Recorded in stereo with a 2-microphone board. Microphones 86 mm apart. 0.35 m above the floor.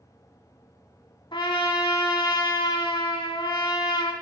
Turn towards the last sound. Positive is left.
turn(degrees=65)  # may be behind; listen again after turning